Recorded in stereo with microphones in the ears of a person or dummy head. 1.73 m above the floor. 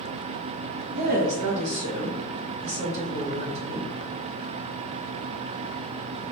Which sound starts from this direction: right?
A woman speaking, at 0.9 s.